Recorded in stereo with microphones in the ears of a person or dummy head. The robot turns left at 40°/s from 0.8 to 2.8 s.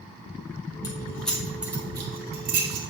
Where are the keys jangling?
20° left (ahead or behind), 1.2 m; by 2.9 s 45° right (ahead or behind), 1.2 m.